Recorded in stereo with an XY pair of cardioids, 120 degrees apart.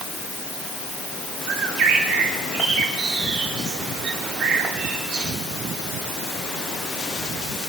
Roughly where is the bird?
Right.